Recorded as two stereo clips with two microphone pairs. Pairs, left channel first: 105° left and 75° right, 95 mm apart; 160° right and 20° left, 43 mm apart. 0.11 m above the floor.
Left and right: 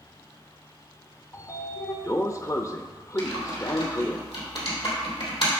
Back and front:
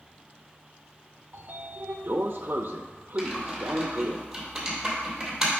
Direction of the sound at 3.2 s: 100° left.